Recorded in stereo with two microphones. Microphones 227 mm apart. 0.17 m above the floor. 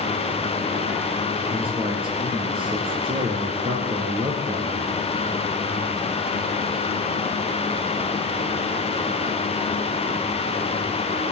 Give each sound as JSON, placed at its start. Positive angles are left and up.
{"t": 1.5, "sound": "a man speaking", "side_deg": -25, "distance_m": 3.5}